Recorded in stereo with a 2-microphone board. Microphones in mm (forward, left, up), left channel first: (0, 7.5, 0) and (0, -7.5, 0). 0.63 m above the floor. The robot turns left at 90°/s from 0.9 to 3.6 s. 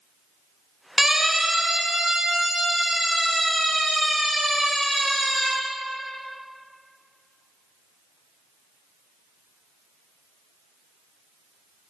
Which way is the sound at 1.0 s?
15° right (ahead or behind).